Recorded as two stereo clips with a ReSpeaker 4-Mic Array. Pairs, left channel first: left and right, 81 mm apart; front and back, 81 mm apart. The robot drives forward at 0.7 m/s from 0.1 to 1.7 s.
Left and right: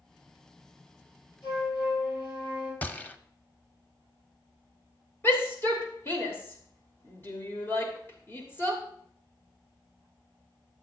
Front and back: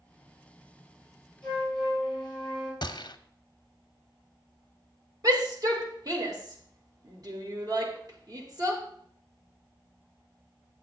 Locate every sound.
1.4 s a flute: 80° left, 6 m
2.8 s a gunshot: 20° left, 0.6 m
5.2 s a shout: 150° left, 2.5 m